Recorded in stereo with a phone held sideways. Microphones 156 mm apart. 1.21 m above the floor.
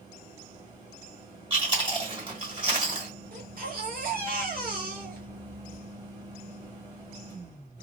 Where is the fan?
25° right (ahead or behind), 1.6 m.